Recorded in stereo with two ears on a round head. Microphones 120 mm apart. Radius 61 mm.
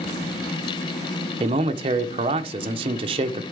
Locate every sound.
1.4 s a man speaking: 40° right (ahead or behind), 0.8 m